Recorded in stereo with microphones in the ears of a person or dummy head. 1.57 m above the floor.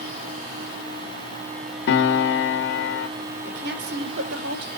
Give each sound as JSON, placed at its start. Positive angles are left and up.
{"t": 1.9, "sound": "a piano", "side_deg": 60, "distance_m": 1.8}
{"t": 3.4, "sound": "a woman speaking", "side_deg": -55, "distance_m": 4.5}